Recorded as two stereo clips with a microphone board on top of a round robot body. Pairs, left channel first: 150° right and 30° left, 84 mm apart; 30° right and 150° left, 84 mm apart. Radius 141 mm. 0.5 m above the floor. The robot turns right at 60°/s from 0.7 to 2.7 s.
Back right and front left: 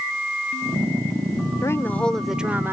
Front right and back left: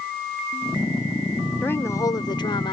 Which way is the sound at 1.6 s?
100° right.